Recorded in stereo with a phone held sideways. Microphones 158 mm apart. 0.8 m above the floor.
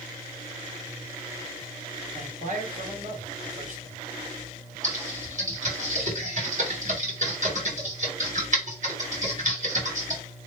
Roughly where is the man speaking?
Right.